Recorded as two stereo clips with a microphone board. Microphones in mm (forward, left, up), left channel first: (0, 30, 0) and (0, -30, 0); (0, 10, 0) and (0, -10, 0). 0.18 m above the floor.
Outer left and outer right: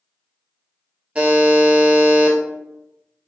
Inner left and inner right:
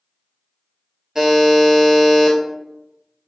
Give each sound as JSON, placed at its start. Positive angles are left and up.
{"t": 1.1, "sound": "a buzzer", "side_deg": -25, "distance_m": 0.7}